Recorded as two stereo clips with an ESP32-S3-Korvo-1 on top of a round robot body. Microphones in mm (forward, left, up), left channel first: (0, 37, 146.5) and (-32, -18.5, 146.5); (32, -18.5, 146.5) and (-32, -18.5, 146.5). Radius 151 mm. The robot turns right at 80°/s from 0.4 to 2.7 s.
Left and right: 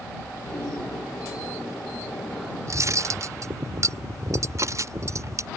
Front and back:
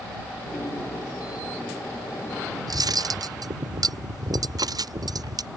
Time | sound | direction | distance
2.7 | cutlery clinking | 165° right | ?